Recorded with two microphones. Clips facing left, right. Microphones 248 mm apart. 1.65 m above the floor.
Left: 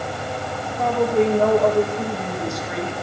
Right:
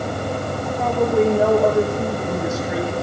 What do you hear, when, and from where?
0.8 s a woman speaking: 5° right (ahead or behind), 2.5 m